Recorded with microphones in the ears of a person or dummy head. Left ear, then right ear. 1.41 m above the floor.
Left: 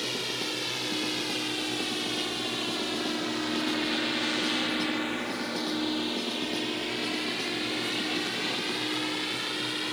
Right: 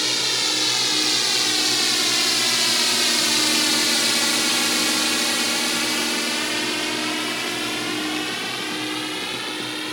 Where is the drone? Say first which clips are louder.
Right 10 dB; 50° right (ahead or behind); by 9.9 s 15° right (ahead or behind).